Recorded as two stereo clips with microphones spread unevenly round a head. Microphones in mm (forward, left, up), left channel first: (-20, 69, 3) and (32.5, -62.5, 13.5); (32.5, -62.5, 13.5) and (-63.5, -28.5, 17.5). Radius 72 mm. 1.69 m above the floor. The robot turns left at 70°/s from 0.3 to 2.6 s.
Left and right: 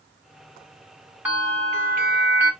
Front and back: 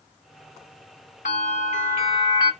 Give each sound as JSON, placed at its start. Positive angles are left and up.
{"t": 1.2, "sound": "a bell", "azimuth_deg": 10, "distance_m": 1.3}